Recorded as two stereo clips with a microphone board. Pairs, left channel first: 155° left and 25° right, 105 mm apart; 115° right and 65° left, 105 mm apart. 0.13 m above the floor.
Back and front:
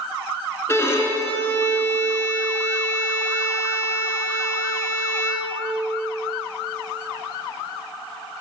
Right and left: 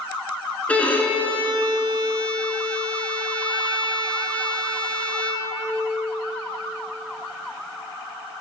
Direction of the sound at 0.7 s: 175° right.